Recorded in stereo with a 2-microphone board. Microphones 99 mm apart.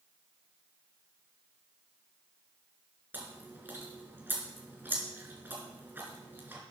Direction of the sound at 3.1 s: 20° right (ahead or behind).